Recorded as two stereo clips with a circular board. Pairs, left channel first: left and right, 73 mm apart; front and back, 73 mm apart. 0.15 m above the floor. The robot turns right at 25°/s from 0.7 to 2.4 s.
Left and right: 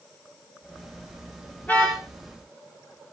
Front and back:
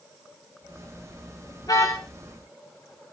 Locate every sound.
1.6 s a car horn: 25° left, 7 m; by 2.0 s 35° left, 7 m